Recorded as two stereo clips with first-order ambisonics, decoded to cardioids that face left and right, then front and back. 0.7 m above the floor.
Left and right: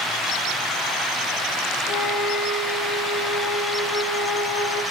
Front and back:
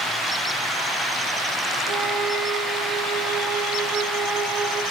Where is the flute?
100° left, 6 m.